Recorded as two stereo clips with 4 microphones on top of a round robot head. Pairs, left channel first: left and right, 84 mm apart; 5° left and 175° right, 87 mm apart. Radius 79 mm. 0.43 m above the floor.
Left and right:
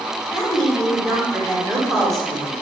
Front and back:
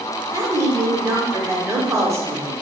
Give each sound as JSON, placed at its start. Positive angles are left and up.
{"t": 0.3, "sound": "a woman speaking", "azimuth_deg": 175, "distance_m": 1.2}